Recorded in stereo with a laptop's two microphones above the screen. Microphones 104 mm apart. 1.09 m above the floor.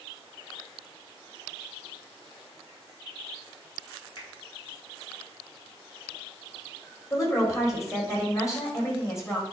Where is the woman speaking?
30° left (ahead or behind), 3 m.